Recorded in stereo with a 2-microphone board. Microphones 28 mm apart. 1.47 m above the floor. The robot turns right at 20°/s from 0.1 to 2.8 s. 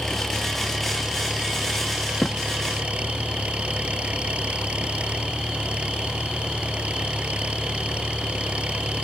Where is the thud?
25° left (ahead or behind).